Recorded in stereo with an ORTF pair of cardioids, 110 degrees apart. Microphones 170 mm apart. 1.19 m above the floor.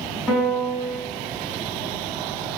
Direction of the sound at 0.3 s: 5° left.